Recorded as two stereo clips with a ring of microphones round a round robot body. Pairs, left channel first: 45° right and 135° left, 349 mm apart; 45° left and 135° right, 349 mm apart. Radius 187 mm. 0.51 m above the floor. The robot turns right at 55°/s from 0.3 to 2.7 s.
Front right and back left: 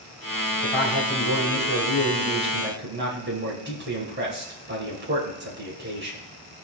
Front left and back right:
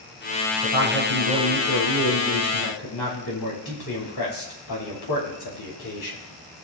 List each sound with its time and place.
0.6 s a man speaking: 40° right, 5 m; by 6.2 s 75° left, 5 m